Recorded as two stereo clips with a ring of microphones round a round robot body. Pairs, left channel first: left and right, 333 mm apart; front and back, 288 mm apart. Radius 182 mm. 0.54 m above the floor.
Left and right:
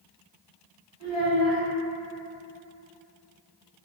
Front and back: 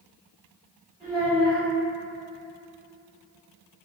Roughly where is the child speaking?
Behind right.